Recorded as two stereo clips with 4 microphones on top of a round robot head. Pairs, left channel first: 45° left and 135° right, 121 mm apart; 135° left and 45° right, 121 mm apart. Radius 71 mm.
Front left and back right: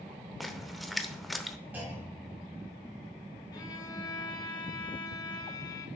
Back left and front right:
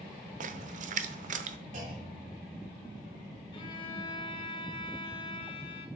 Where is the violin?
95° left, 1.4 m.